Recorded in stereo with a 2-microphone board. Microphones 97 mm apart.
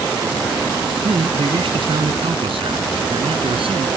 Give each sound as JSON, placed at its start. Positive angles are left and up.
{"t": 1.0, "sound": "a man speaking", "side_deg": -70}